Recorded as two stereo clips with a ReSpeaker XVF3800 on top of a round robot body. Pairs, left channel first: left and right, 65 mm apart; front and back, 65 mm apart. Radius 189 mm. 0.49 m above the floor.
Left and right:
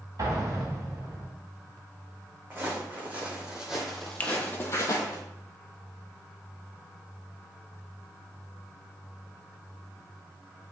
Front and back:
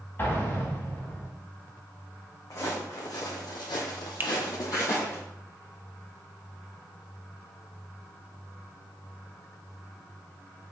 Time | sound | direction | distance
0.2 | an explosion | 60° right | 3 m
2.5 | footsteps | 30° right | 2.5 m
4.2 | a finger snap | 140° left | 1.1 m